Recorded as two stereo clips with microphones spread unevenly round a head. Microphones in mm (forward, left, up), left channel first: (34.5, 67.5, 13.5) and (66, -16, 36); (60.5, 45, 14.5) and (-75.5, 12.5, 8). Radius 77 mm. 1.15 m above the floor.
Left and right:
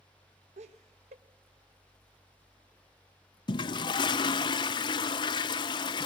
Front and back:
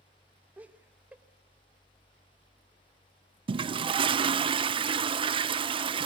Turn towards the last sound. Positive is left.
turn(degrees=140)